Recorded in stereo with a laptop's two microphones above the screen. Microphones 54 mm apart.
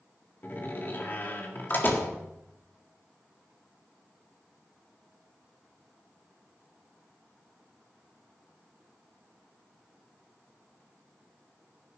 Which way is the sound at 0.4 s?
40° left (ahead or behind).